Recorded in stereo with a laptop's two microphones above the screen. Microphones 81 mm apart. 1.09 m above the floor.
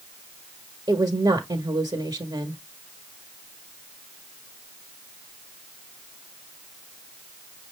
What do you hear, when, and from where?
0.9 s a woman speaking: 80° right, 1.0 m